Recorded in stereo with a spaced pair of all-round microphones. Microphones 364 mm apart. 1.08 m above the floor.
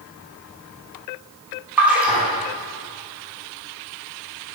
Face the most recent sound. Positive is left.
turn(degrees=-5)  # may be behind; listen again after turning